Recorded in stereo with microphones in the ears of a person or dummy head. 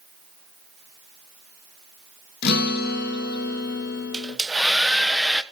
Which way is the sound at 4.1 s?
Centre (ahead or behind).